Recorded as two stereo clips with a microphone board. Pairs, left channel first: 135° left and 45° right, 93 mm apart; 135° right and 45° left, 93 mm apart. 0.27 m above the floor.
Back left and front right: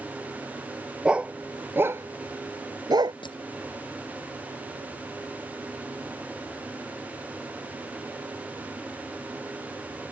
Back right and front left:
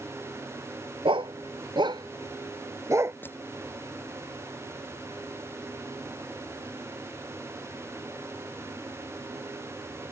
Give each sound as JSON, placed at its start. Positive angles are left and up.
{"t": 1.1, "sound": "a dog barking", "azimuth_deg": 35}
{"t": 3.2, "sound": "crushing", "azimuth_deg": 160}